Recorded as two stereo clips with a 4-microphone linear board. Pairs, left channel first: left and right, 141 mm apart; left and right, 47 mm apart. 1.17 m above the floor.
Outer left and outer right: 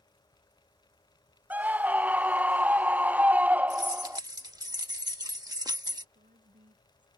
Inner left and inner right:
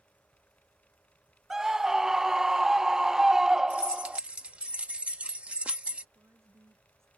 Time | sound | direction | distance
1.5 | a scream | 10° right (ahead or behind) | ?
3.7 | keys jangling | 25° right (ahead or behind) | ?
6.2 | a woman speaking | 65° right (ahead or behind) | ?